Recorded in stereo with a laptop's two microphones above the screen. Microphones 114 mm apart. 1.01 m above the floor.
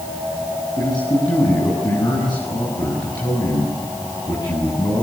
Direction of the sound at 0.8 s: 40° left (ahead or behind).